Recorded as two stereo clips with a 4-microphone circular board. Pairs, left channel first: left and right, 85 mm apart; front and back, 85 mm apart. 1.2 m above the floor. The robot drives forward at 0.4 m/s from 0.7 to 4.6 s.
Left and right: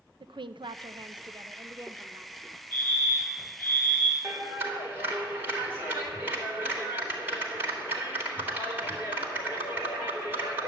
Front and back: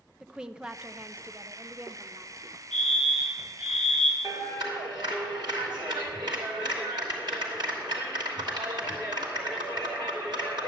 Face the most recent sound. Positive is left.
turn(degrees=-155)